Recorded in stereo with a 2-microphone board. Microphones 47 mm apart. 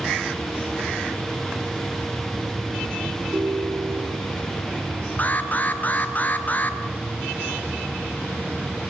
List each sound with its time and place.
3.3 s a ringtone: 45° right (ahead or behind), 4.5 m
5.2 s an alarm: 35° left (ahead or behind), 1.3 m